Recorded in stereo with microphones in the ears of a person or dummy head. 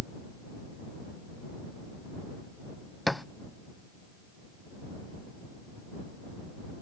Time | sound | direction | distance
3.1 | a thud | 5° right (ahead or behind) | ?